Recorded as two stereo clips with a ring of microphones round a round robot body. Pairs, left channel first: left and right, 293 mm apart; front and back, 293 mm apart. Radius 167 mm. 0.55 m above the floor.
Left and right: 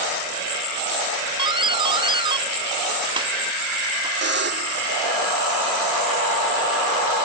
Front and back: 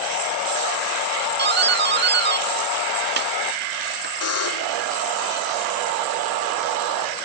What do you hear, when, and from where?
1.4 s a doorbell: 155° right
4.2 s a buzzer: 35° right